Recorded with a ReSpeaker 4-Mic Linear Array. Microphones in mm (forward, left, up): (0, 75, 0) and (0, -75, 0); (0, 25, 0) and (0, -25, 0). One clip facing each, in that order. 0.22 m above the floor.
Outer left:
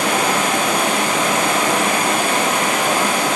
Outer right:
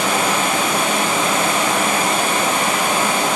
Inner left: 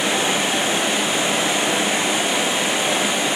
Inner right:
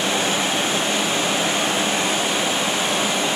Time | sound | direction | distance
0.0 | running water | 80° left | 4 m